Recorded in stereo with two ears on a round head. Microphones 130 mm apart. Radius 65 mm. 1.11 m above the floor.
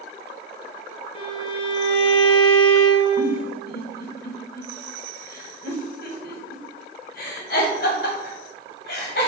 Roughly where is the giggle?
Left.